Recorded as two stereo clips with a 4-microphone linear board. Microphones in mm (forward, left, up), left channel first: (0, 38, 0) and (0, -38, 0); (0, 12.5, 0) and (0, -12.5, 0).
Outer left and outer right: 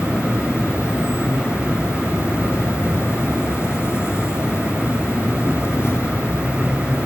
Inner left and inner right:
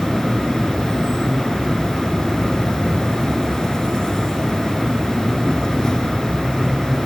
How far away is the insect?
About 0.9 m.